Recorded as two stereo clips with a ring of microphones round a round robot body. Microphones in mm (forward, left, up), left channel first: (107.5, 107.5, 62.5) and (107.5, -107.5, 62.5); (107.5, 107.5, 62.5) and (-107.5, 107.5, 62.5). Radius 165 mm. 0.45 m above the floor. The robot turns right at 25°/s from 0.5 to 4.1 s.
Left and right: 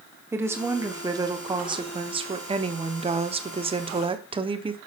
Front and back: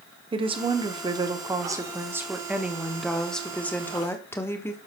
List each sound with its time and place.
0.3 s a woman speaking: 155° right, 1.0 m; by 4.8 s 65° right, 1.0 m